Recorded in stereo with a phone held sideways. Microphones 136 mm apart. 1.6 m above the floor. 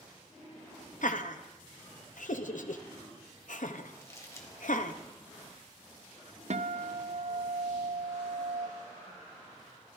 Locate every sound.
1.0 s laughter: 70° left (ahead or behind), 0.7 m
4.0 s crumpling: 20° left (ahead or behind), 1.5 m
6.5 s a guitar: 55° right (ahead or behind), 0.5 m